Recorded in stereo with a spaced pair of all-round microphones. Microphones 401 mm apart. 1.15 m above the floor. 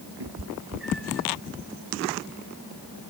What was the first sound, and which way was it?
A cat meowing, 85° right.